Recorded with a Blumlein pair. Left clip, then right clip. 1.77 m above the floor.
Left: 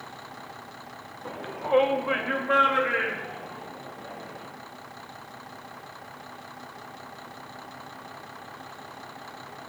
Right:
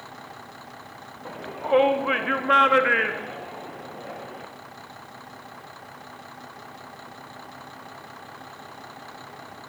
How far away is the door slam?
I don't hear a door slam.